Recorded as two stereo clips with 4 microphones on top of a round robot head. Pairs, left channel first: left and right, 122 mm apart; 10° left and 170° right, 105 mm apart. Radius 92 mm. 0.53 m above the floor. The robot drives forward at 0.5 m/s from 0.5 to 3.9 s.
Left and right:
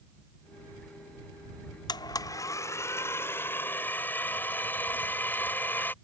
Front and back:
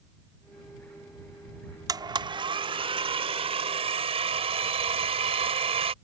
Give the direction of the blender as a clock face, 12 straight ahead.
7 o'clock.